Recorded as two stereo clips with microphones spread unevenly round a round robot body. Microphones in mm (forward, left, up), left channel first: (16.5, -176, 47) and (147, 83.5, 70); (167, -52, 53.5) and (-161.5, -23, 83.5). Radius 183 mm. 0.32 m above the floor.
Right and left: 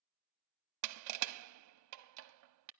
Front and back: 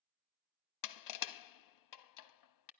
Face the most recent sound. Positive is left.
turn(degrees=35)